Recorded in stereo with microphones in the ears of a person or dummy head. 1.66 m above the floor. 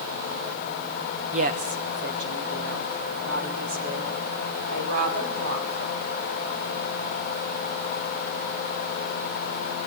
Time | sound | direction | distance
1.3 | a woman speaking | 35° right (ahead or behind) | 1.2 m